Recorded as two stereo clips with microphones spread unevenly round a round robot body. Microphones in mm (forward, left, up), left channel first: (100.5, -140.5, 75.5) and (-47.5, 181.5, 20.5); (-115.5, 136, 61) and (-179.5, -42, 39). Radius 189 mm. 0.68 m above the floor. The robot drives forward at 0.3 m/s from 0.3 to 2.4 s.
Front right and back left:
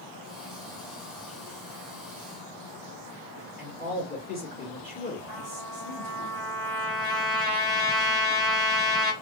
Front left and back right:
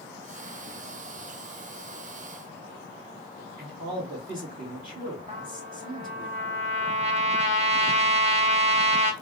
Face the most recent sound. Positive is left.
turn(degrees=-160)